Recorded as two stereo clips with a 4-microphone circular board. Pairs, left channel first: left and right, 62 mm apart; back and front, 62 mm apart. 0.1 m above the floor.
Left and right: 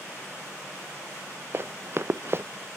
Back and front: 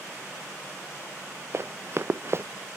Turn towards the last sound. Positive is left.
turn(degrees=-45)